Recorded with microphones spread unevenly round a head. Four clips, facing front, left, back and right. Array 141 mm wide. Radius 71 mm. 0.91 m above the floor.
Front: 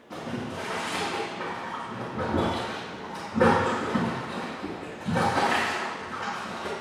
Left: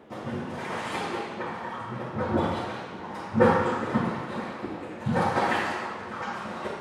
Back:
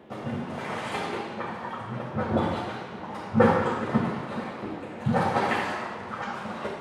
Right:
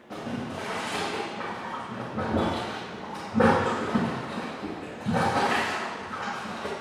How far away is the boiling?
About 2.5 m.